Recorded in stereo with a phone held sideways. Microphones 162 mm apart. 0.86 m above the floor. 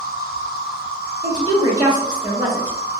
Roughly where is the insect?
Left.